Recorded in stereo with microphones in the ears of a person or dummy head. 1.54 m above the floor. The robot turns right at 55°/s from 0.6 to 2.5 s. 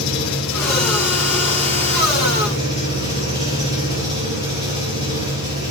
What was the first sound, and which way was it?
An engine running, 105° left.